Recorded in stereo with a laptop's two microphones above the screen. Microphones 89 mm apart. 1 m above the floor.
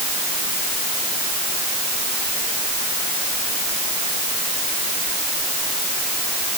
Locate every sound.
Only background noise.